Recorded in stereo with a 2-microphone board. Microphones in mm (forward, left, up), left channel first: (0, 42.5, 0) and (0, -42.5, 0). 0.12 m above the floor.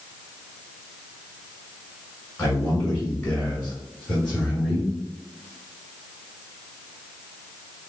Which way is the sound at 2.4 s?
15° left (ahead or behind).